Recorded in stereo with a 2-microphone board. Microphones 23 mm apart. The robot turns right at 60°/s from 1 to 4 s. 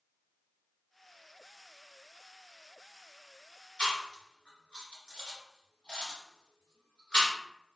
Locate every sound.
3.8 s chewing: 55° left (ahead or behind), 1.3 m; by 7.3 s 45° left (ahead or behind), 1.3 m